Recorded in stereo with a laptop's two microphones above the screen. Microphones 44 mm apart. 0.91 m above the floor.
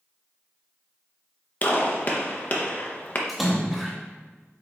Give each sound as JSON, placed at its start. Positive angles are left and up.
{"t": 1.6, "sound": "a gunshot", "side_deg": 35, "distance_m": 0.5}
{"t": 3.3, "sound": "a splash", "side_deg": 0, "distance_m": 0.7}